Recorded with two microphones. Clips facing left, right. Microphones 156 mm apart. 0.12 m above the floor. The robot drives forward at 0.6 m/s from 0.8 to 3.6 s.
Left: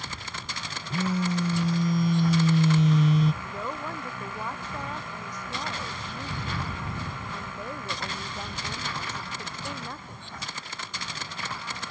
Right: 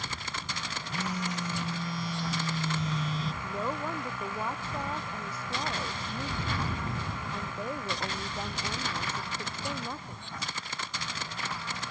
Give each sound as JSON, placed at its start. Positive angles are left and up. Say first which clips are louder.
{"t": 0.9, "sound": "a phone buzzing", "louder": "left 8 dB", "side_deg": 25}
{"t": 3.4, "sound": "a woman speaking", "louder": "right 1 dB", "side_deg": -10}